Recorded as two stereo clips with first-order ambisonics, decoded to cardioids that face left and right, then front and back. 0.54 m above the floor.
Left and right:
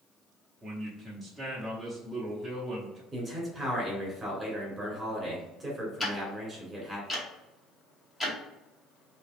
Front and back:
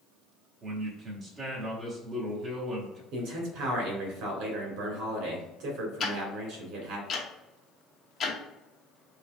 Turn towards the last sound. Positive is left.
turn(degrees=25)